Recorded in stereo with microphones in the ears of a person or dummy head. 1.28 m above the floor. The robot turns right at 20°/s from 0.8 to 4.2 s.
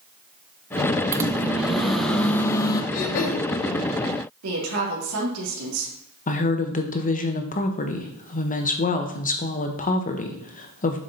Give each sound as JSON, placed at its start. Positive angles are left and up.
{"t": 1.1, "sound": "a microwave", "azimuth_deg": -15, "distance_m": 0.6}
{"t": 2.9, "sound": "throat clearing", "side_deg": 45, "distance_m": 0.9}
{"t": 4.4, "sound": "a woman speaking", "side_deg": -75, "distance_m": 2.0}
{"t": 6.3, "sound": "a woman speaking", "side_deg": 40, "distance_m": 0.8}